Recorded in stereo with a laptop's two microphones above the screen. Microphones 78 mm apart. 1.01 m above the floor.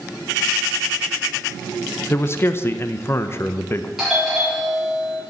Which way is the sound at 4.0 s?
Centre (ahead or behind).